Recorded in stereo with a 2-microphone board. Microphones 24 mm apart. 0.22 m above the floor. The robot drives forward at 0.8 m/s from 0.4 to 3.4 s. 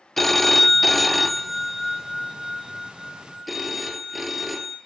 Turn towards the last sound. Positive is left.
turn(degrees=0)  # may be behind; listen again after turning